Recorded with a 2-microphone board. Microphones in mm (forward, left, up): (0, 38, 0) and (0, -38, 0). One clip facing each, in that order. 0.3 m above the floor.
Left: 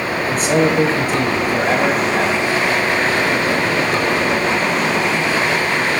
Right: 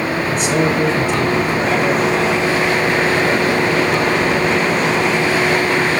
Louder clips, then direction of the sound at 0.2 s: Left 3 dB; 45° left (ahead or behind).